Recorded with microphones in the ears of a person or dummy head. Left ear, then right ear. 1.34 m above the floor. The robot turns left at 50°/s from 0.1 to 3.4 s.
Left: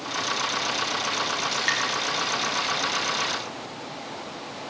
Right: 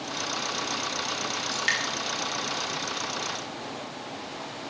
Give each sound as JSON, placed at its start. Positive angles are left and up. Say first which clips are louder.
{"t": 1.5, "sound": "dripping", "louder": "even", "side_deg": 10, "distance_m": 5.0}